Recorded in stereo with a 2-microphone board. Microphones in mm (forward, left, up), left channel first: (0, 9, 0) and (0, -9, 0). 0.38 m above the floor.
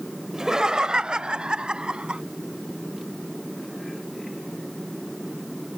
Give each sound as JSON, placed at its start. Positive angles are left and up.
{"t": 0.3, "sound": "laughter", "side_deg": -30}